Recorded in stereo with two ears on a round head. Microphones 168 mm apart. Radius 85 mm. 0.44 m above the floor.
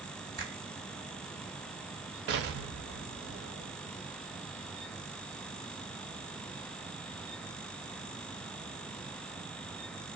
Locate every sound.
0.4 s a finger snap: 50° right (ahead or behind), 2 m
2.3 s an explosion: 65° right (ahead or behind), 0.7 m